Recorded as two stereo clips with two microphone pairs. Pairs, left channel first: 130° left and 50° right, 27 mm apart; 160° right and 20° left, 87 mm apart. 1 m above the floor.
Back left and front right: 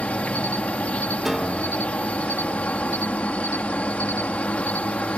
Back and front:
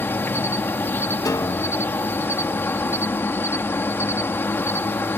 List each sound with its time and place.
0.0 s an insect: 140° left
1.2 s a piano: 130° right